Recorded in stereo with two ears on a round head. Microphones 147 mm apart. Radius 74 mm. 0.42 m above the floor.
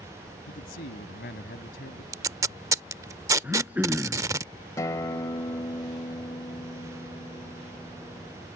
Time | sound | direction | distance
0.5 | a man speaking | 70° left (ahead or behind) | ?
2.1 | tape being pulled | 20° right (ahead or behind) | ?
3.4 | throat clearing | 10° right (ahead or behind) | ?
4.8 | a guitar | 20° left (ahead or behind) | ?